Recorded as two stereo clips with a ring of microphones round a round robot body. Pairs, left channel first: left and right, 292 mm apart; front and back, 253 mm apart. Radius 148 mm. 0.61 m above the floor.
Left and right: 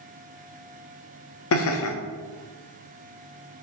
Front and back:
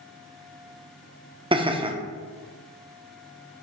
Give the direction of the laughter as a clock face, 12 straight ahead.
8 o'clock.